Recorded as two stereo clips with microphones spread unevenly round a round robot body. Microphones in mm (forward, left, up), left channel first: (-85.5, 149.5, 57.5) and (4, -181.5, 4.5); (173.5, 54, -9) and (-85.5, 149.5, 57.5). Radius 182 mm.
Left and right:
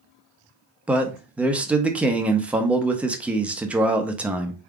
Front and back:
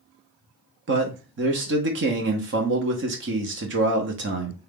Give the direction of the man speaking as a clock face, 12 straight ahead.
5 o'clock.